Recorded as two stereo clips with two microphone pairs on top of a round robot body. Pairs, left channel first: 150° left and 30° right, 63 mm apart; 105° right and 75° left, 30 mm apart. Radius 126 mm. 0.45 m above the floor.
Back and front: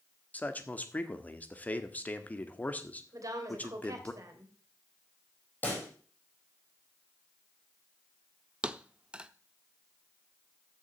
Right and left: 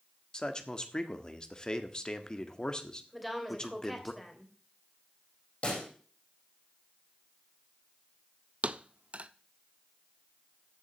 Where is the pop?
150° right, 5 m.